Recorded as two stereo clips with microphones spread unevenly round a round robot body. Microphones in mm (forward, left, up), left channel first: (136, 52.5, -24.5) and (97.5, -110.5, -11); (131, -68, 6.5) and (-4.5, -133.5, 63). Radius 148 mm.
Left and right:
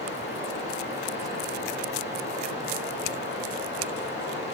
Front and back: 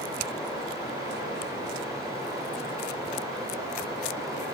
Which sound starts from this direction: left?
Running water, at 0.0 s.